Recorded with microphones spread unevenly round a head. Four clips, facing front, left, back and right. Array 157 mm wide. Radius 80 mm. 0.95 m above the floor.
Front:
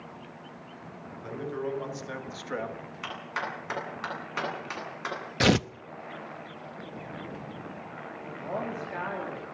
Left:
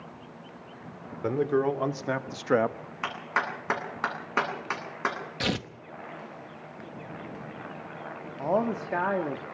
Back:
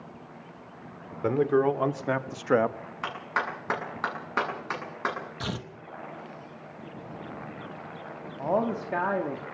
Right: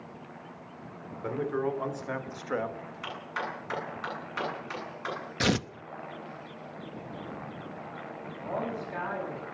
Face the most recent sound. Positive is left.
turn(degrees=125)